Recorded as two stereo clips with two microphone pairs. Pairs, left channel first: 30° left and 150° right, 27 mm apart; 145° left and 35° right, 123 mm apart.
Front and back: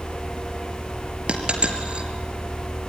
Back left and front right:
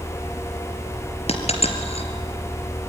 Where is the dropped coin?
170° left, 3 m.